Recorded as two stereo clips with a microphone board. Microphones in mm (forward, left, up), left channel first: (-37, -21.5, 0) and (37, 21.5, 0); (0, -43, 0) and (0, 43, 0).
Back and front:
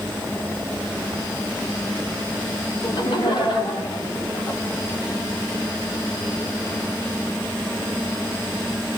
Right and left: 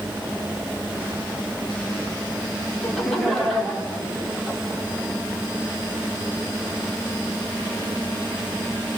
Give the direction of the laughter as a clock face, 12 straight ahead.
6 o'clock.